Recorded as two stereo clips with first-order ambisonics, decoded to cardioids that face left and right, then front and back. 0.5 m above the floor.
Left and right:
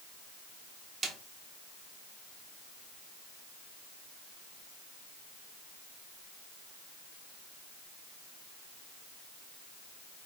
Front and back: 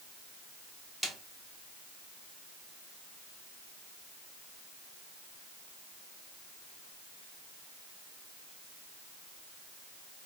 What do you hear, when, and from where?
1.0 s a snare drum: 75° right, 0.6 m